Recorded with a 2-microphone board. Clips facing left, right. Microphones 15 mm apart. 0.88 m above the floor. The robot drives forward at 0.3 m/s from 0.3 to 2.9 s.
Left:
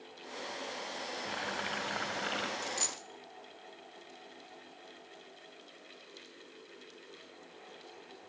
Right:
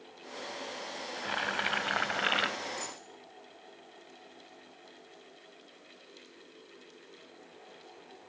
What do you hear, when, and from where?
1.2 s boiling: 35° right (ahead or behind), 1.3 m; by 2.5 s 45° right (ahead or behind), 1.0 m
2.6 s a dropped coin: 65° left (ahead or behind), 1.2 m; by 3.0 s 60° left (ahead or behind), 1.2 m